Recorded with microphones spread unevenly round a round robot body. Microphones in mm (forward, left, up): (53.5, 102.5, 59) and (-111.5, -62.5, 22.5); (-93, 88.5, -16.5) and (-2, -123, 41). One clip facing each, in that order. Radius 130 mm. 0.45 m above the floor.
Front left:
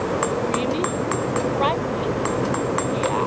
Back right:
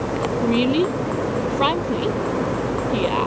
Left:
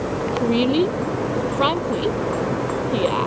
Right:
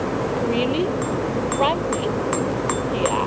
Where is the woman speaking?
175° left.